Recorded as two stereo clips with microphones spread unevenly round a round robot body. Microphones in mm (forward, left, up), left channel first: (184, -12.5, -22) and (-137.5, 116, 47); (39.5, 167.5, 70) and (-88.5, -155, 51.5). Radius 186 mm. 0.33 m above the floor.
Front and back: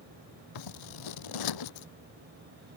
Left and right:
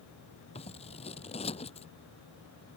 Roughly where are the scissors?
Ahead.